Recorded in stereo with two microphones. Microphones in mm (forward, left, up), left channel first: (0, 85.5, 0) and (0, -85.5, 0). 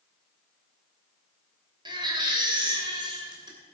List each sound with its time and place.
1.9 s a baby crying: 25° right (ahead or behind), 2.5 m